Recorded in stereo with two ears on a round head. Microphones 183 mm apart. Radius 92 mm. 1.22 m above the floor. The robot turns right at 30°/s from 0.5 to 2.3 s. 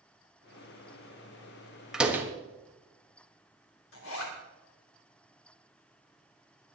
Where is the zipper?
70° left (ahead or behind), 3.5 m.